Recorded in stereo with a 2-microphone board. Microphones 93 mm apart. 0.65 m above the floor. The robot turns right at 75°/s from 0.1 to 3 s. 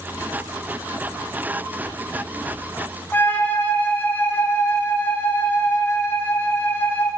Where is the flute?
20° left (ahead or behind), 1.3 m.